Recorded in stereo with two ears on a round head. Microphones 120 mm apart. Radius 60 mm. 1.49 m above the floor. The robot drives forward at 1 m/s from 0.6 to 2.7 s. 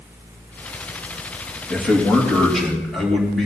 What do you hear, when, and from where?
1.7 s a man speaking: 5° left (ahead or behind), 3 m; by 3.5 s centre (ahead or behind), 4 m